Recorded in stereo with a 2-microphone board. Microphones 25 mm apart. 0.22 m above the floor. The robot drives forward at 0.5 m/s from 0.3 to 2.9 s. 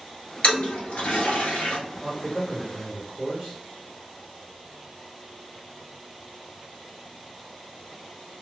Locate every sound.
0.4 s a toilet flushing: 65° left (ahead or behind), 1.3 m; by 1.8 s 75° left (ahead or behind), 1.2 m
2.0 s a man speaking: 30° right (ahead or behind), 1.8 m